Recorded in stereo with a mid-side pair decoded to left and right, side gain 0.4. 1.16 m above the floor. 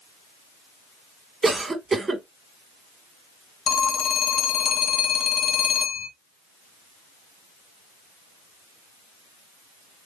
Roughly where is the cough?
Ahead right.